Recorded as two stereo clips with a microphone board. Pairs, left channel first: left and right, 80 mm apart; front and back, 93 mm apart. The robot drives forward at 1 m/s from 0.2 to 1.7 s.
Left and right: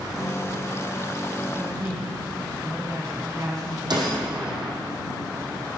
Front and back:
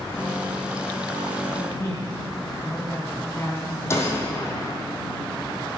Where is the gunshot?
60° right, 3.5 m.